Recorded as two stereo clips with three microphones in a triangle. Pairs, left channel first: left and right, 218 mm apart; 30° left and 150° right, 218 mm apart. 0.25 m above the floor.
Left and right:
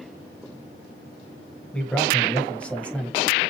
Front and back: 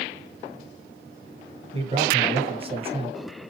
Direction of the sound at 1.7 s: 170° left.